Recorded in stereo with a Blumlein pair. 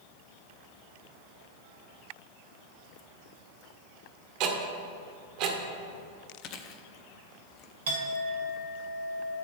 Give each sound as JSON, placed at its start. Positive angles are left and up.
{"t": 4.4, "sound": "ticking", "azimuth_deg": -40, "distance_m": 1.6}
{"t": 6.4, "sound": "chewing", "azimuth_deg": 35, "distance_m": 0.8}
{"t": 7.9, "sound": "a clink", "azimuth_deg": -60, "distance_m": 2.5}